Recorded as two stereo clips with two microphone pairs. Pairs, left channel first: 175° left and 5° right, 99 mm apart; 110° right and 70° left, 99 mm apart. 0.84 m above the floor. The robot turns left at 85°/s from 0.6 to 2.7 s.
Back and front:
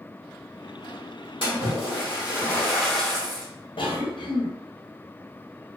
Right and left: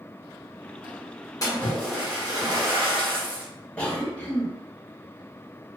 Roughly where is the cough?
Behind.